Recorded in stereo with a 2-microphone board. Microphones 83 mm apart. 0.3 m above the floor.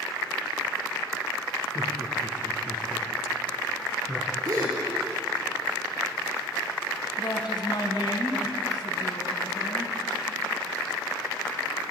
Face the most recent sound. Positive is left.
turn(degrees=60)  # may be behind; listen again after turning